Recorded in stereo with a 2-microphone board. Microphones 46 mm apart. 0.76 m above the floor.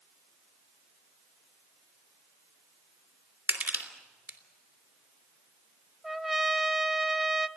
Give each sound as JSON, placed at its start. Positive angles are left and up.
{"t": 3.5, "sound": "crushing", "side_deg": -35, "distance_m": 3.0}
{"t": 6.0, "sound": "a trumpet", "side_deg": -5, "distance_m": 0.6}